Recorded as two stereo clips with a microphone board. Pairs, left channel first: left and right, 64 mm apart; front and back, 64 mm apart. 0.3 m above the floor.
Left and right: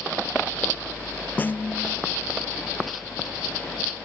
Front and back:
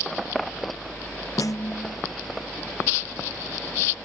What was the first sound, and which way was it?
A snare drum, 25° left.